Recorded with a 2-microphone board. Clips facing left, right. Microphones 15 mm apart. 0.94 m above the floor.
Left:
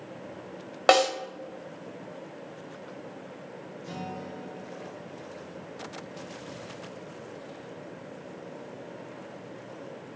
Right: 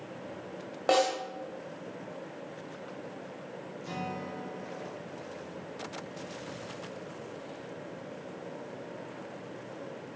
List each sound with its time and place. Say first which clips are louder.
0.9 s a snare drum: left 5 dB; 45° left (ahead or behind), 1.5 m
3.8 s a guitar: right 1 dB; 20° right (ahead or behind), 2.5 m